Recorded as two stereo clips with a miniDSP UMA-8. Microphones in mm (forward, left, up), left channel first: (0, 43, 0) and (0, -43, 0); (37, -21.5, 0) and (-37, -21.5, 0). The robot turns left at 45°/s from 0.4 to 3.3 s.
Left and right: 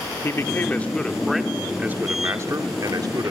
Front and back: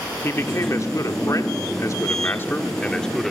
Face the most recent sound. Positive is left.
turn(degrees=-90)